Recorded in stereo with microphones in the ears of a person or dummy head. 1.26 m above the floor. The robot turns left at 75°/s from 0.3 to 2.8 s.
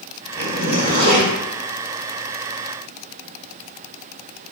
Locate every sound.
0.4 s a zipper: 10° left, 3.5 m; by 1.3 s 60° right, 3.5 m